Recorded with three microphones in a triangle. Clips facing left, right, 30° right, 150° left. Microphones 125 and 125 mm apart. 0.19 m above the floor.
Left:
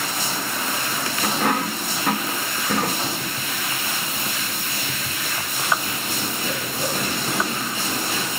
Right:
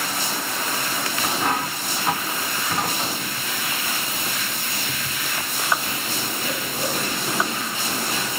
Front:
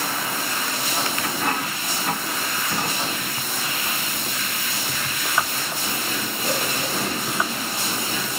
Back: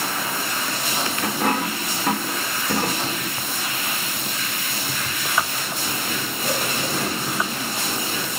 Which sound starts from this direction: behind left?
A dropped coin, at 1.2 s.